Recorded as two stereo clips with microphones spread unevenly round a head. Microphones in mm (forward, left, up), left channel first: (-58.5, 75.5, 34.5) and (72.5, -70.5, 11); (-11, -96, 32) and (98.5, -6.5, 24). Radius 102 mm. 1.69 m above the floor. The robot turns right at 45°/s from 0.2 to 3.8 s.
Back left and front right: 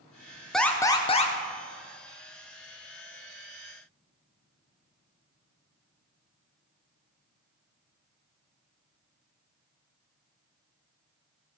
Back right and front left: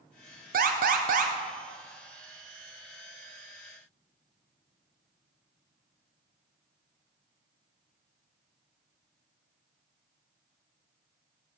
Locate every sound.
0.5 s an alarm: 40° left, 1.2 m; by 1.3 s 75° left, 1.2 m